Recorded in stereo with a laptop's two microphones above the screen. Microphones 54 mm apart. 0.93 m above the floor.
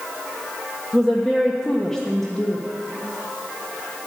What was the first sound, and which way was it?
A woman speaking, 15° left (ahead or behind).